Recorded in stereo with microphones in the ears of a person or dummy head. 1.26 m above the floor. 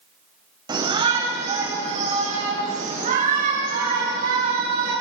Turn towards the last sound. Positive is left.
turn(degrees=-45)  # may be behind; listen again after turning